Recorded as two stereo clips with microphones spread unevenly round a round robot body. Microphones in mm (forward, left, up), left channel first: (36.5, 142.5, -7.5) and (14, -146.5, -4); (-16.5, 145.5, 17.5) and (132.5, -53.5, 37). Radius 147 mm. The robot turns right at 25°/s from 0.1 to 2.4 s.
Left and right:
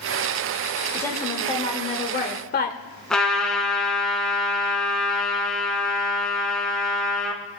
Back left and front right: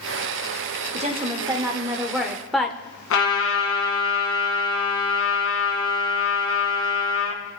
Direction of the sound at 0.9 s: 5° left.